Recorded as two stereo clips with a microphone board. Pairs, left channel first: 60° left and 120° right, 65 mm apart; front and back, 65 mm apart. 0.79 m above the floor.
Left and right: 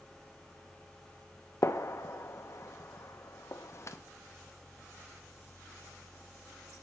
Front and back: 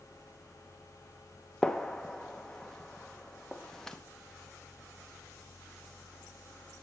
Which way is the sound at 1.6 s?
80° left.